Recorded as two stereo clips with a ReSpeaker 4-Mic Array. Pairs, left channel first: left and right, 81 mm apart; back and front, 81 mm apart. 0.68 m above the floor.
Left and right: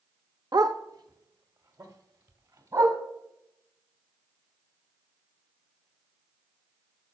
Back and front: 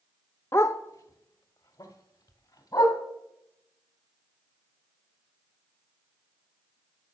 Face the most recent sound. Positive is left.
turn(degrees=-130)